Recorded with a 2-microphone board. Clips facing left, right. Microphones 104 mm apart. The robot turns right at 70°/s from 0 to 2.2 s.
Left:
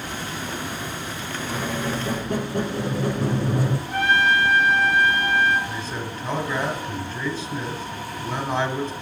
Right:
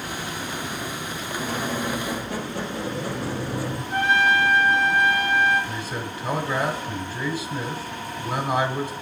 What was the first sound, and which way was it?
A squeak, 5° right.